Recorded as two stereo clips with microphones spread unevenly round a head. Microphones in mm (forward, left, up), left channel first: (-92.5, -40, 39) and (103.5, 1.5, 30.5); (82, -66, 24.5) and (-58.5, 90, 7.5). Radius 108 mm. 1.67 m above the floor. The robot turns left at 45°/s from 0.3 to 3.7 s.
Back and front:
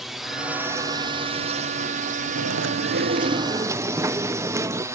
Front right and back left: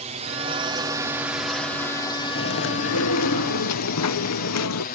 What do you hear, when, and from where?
0.0 s a drone: 100° left; by 5.0 s 55° right
2.4 s chewing: 5° right; by 4.8 s 65° right